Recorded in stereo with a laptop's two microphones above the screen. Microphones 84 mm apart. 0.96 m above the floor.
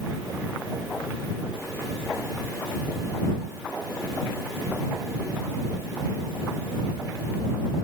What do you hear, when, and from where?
Only background noise.